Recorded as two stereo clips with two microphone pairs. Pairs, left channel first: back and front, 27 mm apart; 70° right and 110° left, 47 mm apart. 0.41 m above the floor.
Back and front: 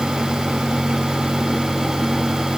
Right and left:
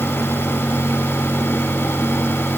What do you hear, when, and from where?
Only background noise.